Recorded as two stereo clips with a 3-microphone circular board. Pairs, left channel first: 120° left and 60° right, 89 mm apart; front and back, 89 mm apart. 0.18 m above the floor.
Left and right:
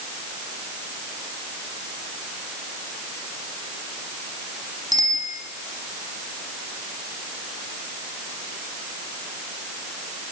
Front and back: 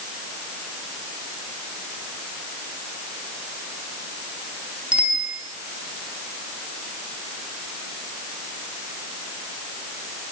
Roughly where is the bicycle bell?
Right.